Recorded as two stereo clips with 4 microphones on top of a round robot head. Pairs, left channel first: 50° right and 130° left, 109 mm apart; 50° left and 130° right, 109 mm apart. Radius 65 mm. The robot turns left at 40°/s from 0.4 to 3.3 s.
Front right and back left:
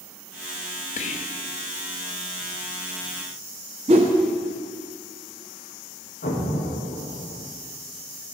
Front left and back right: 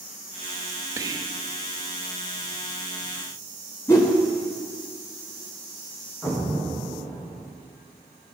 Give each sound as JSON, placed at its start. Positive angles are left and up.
{"t": 1.0, "sound": "whispering", "azimuth_deg": -65, "distance_m": 0.6}
{"t": 3.9, "sound": "a whoosh", "azimuth_deg": 110, "distance_m": 0.7}
{"t": 6.2, "sound": "an explosion", "azimuth_deg": -35, "distance_m": 1.2}